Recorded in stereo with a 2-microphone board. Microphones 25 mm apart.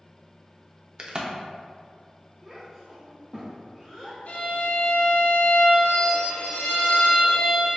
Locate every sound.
1.0 s a crack: 35° right (ahead or behind), 0.6 m
2.4 s a child speaking: 5° right (ahead or behind), 0.7 m
4.3 s a violin: 80° left, 0.8 m